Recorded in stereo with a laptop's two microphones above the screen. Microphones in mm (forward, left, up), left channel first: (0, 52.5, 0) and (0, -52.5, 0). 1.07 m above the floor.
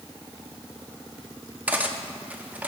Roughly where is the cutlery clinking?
Centre.